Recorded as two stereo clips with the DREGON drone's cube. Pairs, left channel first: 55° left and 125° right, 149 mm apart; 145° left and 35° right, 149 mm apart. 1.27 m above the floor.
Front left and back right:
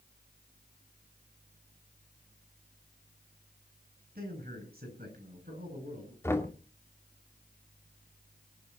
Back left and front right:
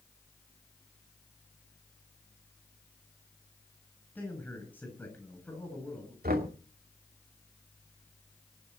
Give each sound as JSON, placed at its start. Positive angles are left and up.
{"t": 4.2, "sound": "a man speaking", "azimuth_deg": -135, "distance_m": 9.5}
{"t": 6.2, "sound": "knocking", "azimuth_deg": -20, "distance_m": 2.5}